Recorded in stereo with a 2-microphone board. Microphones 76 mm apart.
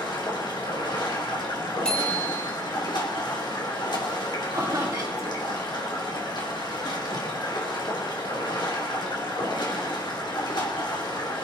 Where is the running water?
80° left, 2.5 m.